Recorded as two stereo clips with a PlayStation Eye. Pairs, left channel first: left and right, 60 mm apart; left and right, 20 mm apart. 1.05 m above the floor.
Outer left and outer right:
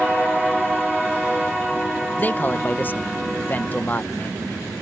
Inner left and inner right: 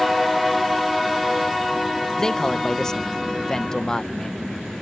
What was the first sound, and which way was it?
A man speaking, 30° left (ahead or behind).